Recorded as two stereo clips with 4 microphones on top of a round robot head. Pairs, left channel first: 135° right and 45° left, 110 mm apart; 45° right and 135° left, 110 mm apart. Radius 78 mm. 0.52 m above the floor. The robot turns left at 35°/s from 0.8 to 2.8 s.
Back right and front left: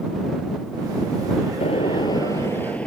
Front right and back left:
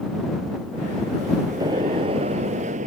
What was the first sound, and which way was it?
A gunshot, 170° right.